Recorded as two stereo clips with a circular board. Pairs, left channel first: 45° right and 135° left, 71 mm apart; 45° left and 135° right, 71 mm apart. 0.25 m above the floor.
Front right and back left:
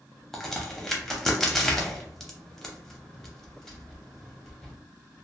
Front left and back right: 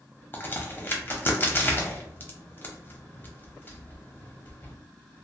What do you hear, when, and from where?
0.3 s a crack: 35° left, 0.7 m